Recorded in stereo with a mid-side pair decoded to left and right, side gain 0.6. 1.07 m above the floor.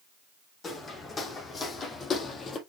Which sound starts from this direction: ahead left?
Footsteps, at 0.6 s.